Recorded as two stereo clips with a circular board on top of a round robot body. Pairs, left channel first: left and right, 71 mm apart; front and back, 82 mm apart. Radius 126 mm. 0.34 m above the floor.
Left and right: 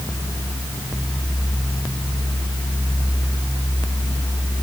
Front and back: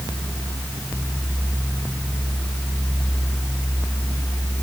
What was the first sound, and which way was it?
Only background noise.